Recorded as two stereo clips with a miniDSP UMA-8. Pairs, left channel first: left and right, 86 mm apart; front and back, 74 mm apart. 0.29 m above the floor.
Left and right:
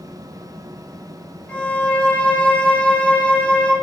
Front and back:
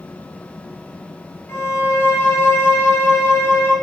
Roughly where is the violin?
Ahead left.